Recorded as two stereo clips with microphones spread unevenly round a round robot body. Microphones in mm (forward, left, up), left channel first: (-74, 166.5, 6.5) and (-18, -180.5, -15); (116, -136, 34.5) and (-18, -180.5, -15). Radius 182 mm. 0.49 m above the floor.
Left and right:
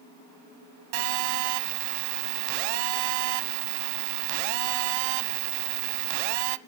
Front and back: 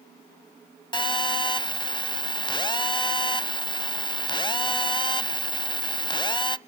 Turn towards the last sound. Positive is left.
turn(degrees=-35)